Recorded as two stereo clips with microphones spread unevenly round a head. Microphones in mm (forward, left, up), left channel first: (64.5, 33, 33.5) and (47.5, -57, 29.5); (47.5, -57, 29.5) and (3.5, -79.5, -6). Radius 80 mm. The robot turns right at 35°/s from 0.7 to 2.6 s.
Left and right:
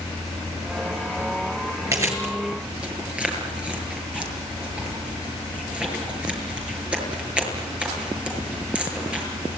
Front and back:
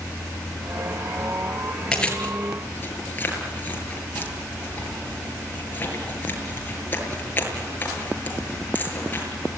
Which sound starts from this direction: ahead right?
Chewing, at 1.9 s.